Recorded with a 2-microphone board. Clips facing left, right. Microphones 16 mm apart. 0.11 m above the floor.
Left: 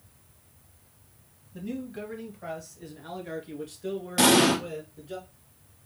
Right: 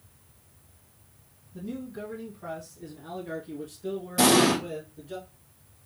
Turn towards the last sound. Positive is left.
turn(degrees=30)  # may be behind; listen again after turning